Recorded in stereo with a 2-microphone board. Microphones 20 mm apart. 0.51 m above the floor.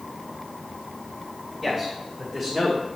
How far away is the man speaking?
About 2.5 m.